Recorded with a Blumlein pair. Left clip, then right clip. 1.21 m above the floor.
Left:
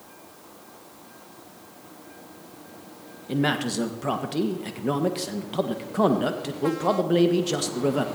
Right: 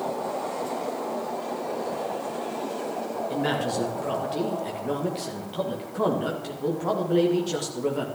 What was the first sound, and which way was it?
A man speaking, 20° left.